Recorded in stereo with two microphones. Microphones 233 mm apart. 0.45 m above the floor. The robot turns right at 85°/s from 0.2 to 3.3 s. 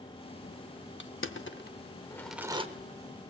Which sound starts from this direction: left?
Crushing, at 1.0 s.